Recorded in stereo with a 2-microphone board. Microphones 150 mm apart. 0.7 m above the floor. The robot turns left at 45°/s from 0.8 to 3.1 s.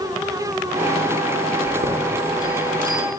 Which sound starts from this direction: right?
A chime, at 1.6 s.